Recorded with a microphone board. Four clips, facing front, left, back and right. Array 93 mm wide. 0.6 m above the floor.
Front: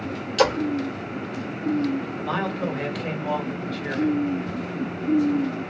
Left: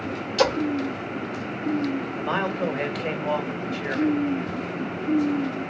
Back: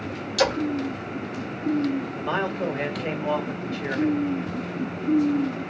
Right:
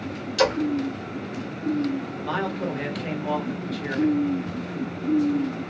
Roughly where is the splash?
Ahead.